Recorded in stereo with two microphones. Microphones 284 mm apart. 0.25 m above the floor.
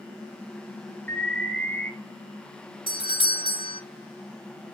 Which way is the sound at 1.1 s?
5° left (ahead or behind).